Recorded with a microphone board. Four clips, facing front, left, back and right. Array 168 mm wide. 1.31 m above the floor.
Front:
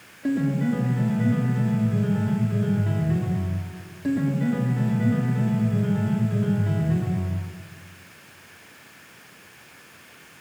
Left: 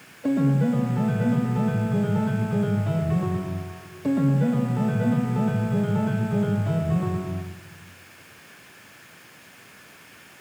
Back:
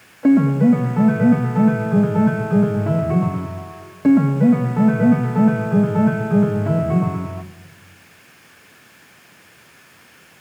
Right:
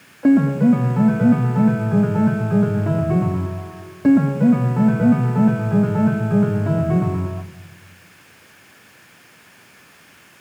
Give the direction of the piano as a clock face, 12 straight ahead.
5 o'clock.